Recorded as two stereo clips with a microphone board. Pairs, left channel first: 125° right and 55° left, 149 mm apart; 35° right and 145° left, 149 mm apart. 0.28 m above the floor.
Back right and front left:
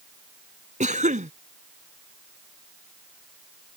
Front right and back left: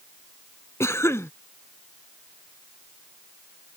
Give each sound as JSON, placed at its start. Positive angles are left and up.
{"t": 0.8, "sound": "a cough", "azimuth_deg": 35}